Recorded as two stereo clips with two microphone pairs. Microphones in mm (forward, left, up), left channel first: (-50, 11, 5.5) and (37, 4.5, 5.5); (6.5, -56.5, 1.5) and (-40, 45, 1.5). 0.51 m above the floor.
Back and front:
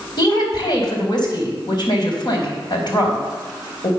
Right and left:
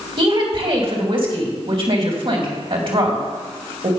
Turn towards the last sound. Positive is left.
turn(degrees=150)